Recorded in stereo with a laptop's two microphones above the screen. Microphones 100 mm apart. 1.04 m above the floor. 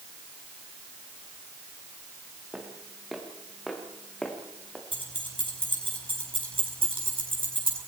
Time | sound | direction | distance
2.5 | footsteps | 5° right (ahead or behind) | 6 m
4.9 | keys jangling | 65° right (ahead or behind) | 7 m